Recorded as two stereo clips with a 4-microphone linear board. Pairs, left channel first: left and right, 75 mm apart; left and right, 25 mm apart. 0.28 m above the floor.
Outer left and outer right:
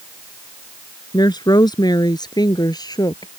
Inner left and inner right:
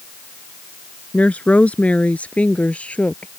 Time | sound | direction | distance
1.1 | a woman speaking | 70° left (ahead or behind) | ?